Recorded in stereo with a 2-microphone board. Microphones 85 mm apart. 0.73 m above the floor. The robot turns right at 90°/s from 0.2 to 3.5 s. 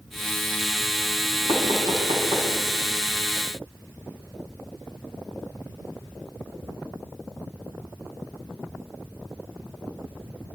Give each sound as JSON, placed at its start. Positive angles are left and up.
{"t": 1.5, "sound": "knocking", "side_deg": -50, "distance_m": 5.0}